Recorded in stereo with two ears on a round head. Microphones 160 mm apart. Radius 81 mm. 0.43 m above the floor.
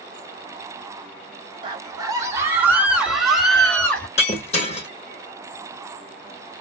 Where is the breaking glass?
35° left (ahead or behind), 1.7 m.